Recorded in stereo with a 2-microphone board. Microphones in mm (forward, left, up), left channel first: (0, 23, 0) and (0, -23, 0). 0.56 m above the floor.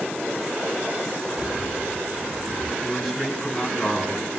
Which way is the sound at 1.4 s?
40° right (ahead or behind).